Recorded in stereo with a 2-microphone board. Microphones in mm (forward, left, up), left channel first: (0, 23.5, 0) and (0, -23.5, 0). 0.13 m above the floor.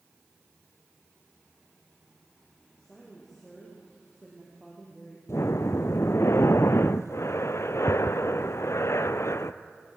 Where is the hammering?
No hammering in this recording.